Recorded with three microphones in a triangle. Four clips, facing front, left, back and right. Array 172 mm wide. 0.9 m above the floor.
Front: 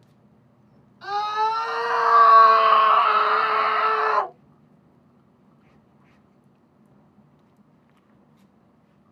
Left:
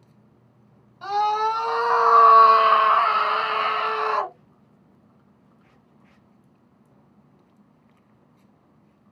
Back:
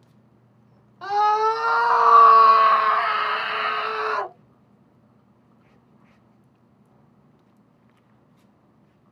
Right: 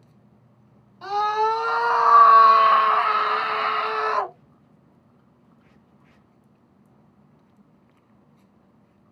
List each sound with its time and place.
1.0 s a scream: 175° right, 1.2 m; by 4.3 s 10° left, 1.3 m